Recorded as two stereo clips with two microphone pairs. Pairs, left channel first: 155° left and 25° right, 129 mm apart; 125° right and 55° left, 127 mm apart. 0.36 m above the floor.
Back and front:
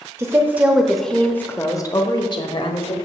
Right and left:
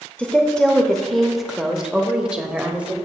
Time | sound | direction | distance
0.2 | a woman speaking | 55° right | 1.0 m